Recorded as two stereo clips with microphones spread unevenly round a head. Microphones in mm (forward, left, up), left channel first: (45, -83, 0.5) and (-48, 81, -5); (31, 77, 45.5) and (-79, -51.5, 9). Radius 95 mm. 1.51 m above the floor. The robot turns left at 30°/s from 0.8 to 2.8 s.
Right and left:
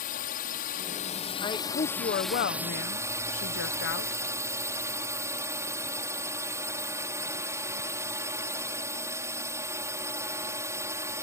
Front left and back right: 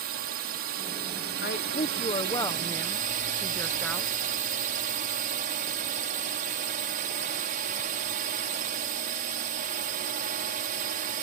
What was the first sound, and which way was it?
A drone, 105° right.